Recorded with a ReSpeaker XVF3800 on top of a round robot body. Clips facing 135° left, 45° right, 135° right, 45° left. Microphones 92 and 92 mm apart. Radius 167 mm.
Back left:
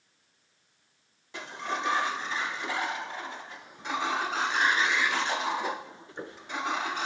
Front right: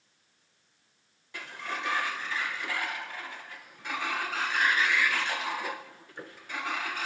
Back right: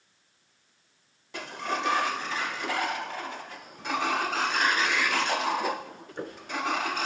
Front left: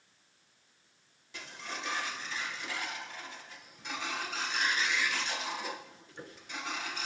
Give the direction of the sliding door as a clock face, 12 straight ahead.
5 o'clock.